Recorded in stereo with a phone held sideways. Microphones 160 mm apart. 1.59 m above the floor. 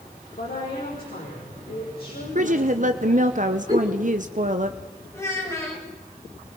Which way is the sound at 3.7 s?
25° right (ahead or behind).